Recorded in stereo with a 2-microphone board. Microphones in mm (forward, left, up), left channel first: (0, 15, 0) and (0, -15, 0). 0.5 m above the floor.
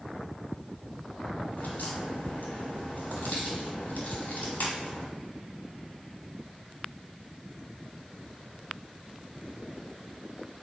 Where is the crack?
70° left (ahead or behind), 2.5 m.